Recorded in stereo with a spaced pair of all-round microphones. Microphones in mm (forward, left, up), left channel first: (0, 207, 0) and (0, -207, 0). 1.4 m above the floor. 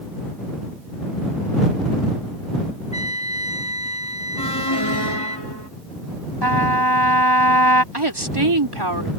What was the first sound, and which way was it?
A trumpet, 15° left (ahead or behind).